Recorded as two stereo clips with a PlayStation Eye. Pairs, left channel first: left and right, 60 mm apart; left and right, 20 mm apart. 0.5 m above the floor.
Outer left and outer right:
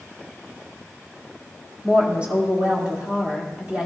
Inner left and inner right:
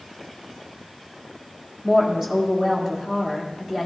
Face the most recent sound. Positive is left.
turn(degrees=-20)  # may be behind; listen again after turning